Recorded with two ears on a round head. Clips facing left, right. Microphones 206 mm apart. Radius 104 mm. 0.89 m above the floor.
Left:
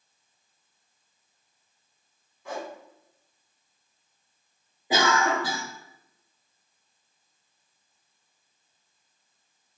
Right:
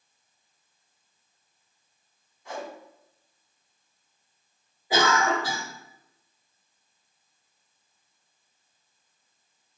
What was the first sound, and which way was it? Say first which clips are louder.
A whoosh: left 1 dB; 65° left (ahead or behind).